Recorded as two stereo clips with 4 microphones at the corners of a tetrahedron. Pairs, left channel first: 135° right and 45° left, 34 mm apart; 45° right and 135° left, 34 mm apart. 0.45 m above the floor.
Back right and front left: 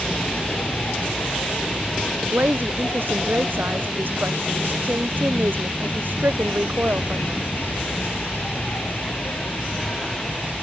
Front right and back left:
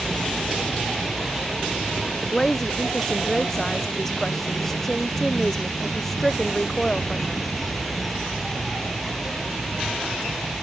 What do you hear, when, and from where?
0.0 s an insect: 135° right
2.2 s a woman speaking: 35° left